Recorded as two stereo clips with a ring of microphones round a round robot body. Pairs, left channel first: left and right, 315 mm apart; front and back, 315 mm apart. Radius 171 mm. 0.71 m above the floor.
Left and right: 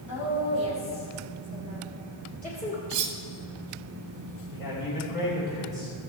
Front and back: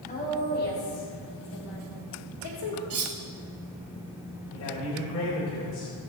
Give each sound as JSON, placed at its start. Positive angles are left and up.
{"t": 0.1, "sound": "a woman speaking", "azimuth_deg": 65, "distance_m": 4.0}
{"t": 2.9, "sound": "cutlery clinking", "azimuth_deg": -130, "distance_m": 1.2}
{"t": 4.5, "sound": "a man speaking", "azimuth_deg": 40, "distance_m": 3.0}